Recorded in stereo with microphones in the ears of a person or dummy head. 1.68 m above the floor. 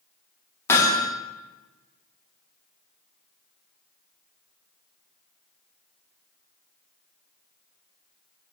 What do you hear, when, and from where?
0.7 s hammering: 15° left (ahead or behind), 3.5 m